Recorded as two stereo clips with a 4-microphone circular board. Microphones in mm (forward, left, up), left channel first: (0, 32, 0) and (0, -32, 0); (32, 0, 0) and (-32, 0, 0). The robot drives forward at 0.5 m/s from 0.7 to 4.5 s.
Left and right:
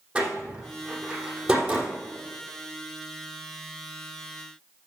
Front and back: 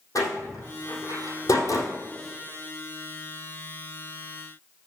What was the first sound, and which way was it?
A door slam, 15° right.